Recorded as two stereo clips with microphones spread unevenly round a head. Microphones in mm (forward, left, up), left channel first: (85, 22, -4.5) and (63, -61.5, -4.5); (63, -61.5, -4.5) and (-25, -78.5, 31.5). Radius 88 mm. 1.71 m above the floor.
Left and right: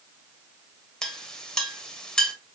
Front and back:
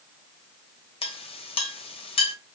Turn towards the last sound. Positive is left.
turn(degrees=-5)